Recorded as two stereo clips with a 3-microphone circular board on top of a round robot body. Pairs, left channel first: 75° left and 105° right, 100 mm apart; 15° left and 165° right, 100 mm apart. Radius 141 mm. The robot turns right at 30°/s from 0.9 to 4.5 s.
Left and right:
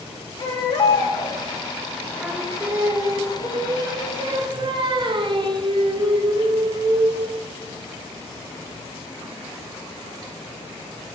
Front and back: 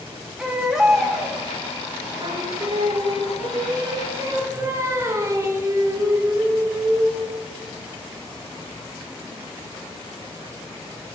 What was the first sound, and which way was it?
A baby crying, 110° left.